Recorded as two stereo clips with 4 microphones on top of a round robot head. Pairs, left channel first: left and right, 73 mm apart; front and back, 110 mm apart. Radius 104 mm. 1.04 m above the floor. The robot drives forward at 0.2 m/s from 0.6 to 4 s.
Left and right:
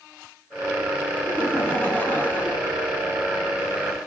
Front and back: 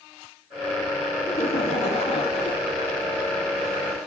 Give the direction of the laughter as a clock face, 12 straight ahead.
11 o'clock.